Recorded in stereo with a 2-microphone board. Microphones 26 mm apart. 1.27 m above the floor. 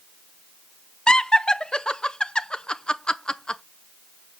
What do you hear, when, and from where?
1.1 s laughter: 30° left (ahead or behind), 0.7 m